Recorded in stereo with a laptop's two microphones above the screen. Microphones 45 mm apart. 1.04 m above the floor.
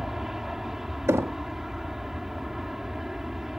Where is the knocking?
75° right (ahead or behind).